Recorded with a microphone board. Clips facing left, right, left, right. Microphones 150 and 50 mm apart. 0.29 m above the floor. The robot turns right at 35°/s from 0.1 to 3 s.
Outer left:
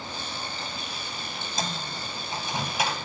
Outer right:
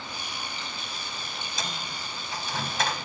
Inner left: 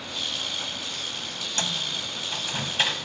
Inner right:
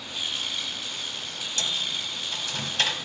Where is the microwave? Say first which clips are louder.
Outer left 5 dB, even; 45° left (ahead or behind), 1.1 m; by 3.0 s 10° left (ahead or behind), 1.1 m.